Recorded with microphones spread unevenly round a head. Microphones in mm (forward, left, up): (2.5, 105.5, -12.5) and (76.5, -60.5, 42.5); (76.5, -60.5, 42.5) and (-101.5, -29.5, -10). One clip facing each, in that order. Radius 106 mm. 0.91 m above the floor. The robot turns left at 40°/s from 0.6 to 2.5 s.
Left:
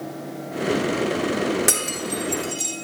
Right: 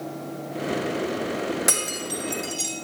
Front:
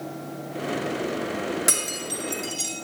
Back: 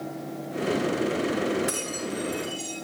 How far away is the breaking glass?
About 6 m.